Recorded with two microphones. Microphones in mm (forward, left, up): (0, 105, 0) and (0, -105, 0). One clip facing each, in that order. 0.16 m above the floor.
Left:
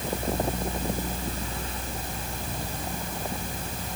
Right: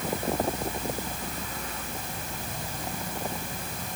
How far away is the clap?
I don't hear a clap.